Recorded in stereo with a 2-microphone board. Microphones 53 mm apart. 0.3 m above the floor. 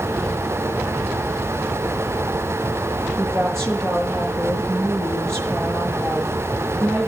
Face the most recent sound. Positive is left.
turn(degrees=-60)  # may be behind; listen again after turning